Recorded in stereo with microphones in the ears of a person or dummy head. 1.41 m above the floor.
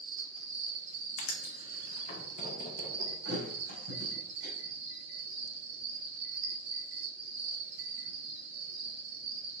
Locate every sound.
0.0 s an insect: 70° right (ahead or behind), 2.5 m
1.2 s writing: 45° left (ahead or behind), 1.8 m
3.2 s a thud: 60° right (ahead or behind), 4 m